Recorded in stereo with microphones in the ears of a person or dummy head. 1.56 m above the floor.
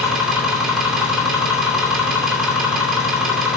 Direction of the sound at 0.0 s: 5° right (ahead or behind).